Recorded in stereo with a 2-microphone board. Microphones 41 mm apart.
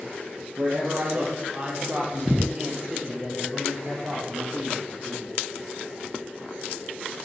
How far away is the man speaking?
About 6 m.